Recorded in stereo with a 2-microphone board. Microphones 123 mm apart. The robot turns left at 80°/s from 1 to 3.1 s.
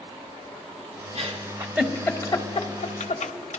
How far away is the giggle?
About 1.0 m.